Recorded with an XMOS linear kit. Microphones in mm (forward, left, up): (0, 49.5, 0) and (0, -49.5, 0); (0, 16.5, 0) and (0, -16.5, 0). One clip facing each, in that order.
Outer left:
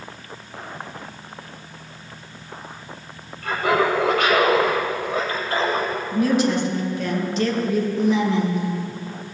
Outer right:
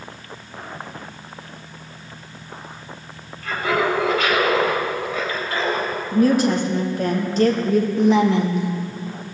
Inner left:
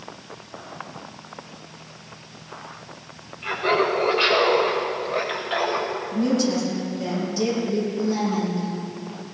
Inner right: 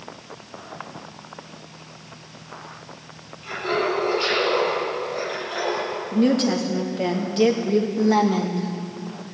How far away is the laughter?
About 4 m.